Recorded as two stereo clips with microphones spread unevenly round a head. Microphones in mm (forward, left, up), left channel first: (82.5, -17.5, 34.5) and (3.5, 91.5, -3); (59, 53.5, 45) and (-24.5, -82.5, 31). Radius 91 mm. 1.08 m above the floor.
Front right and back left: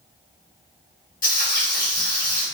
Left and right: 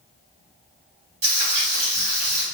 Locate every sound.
1.2 s frying: 75° right, 1.9 m